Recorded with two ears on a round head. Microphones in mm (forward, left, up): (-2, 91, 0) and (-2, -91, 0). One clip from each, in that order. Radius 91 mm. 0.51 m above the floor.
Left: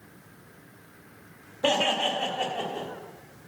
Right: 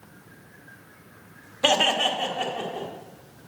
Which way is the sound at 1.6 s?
40° right (ahead or behind).